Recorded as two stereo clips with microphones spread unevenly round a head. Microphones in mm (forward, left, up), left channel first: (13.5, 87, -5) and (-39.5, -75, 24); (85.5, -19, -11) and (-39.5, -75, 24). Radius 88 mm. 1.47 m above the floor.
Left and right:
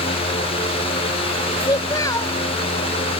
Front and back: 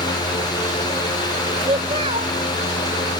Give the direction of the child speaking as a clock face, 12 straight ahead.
7 o'clock.